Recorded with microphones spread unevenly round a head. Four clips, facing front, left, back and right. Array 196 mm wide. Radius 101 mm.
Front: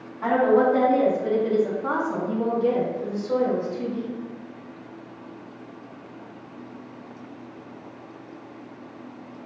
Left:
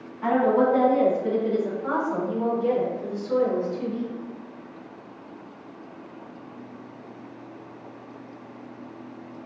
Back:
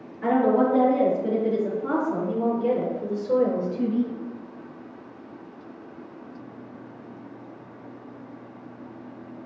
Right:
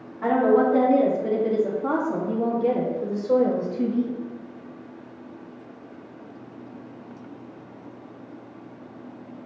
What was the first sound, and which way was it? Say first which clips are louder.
A woman speaking: right 1 dB, front 1 dB; 65° right.